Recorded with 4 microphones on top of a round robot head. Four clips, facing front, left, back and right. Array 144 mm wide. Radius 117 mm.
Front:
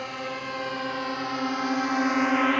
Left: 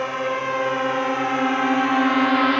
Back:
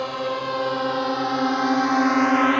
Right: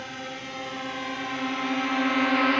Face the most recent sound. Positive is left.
turn(degrees=135)